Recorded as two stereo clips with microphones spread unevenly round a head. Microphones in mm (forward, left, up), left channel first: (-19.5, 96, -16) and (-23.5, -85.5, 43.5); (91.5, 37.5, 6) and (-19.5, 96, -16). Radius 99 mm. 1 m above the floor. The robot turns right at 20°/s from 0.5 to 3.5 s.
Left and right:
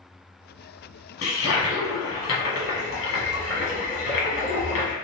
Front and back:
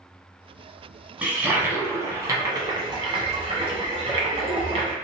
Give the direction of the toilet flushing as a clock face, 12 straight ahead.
10 o'clock.